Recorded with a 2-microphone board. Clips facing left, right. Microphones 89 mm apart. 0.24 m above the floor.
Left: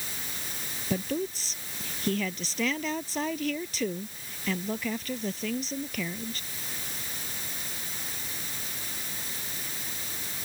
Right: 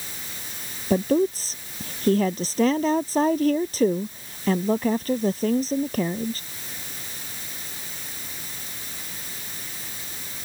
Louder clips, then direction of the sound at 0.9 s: Right 10 dB; 40° right (ahead or behind).